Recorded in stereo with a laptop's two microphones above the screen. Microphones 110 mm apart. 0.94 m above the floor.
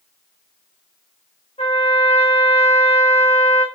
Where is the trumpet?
90° left, 0.7 m.